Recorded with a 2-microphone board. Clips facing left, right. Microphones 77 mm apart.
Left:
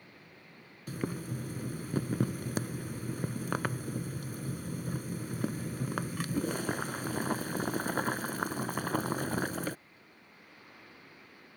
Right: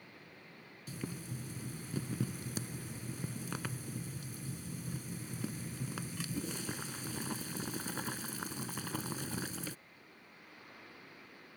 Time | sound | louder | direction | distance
0.9 | boiling | left 7 dB | 60° left (ahead or behind) | ?